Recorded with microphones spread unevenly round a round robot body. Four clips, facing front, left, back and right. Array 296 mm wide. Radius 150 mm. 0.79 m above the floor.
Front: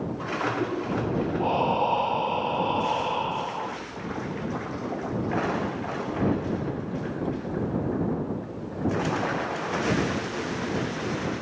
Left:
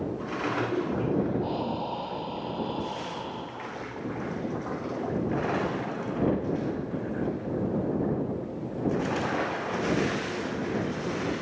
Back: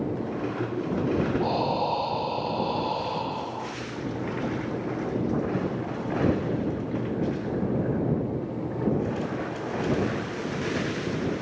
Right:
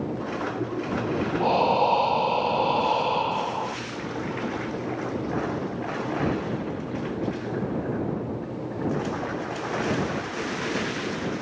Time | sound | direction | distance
1.4 | breathing | 70° right | ?